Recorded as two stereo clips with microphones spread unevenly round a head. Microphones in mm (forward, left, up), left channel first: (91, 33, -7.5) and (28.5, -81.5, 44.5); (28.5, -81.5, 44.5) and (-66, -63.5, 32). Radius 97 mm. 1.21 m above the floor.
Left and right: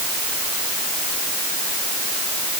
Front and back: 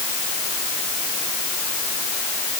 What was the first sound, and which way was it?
Only background noise.